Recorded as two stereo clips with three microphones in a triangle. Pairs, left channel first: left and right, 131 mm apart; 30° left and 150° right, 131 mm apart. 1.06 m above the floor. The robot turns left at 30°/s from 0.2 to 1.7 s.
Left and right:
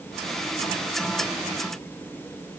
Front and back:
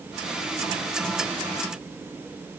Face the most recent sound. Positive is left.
No sound to turn to.